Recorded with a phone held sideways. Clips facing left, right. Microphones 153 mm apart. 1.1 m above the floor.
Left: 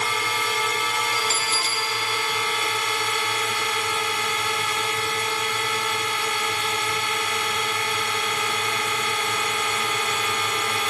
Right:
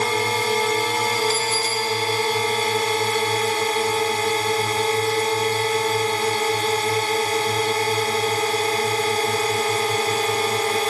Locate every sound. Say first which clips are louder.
0.0 s a drone: right 6 dB; 35° right (ahead or behind)
1.1 s a bell: right 6 dB; 70° left (ahead or behind)